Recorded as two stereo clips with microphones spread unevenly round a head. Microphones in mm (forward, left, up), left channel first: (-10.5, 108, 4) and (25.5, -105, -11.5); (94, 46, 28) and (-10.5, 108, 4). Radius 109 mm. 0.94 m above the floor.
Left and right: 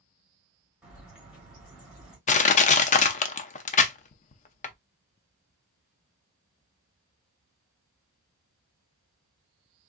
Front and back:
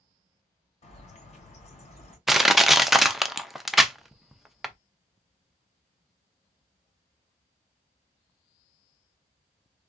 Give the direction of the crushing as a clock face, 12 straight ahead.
10 o'clock.